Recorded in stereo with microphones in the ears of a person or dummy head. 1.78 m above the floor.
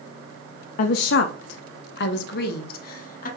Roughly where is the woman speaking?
Left.